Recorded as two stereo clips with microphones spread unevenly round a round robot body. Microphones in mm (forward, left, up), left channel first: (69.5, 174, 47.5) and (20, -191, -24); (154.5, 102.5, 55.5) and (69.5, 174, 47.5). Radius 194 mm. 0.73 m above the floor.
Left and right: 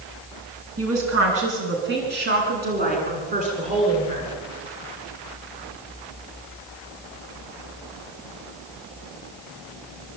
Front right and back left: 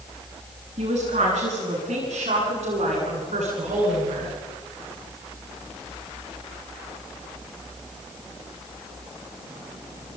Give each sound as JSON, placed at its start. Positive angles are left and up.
{"t": 0.8, "sound": "a woman speaking", "azimuth_deg": -155, "distance_m": 9.0}